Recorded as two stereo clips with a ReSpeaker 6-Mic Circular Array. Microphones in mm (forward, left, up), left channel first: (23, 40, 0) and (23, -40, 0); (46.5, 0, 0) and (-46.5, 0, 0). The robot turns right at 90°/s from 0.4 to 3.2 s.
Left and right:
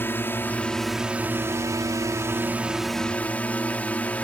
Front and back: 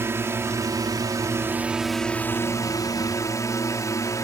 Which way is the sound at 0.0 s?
135° left.